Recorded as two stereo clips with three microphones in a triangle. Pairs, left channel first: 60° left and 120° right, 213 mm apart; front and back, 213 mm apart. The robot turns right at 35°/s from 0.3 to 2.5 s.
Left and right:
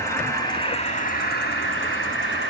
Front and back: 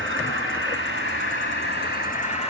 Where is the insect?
15° right, 3.5 m; by 2.5 s 60° left, 3.5 m.